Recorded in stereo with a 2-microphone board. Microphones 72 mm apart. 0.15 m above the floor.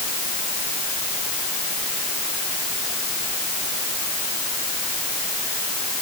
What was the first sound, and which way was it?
Only background noise.